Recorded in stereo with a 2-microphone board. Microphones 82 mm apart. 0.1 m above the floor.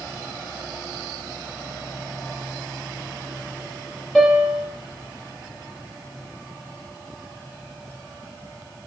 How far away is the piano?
About 3 m.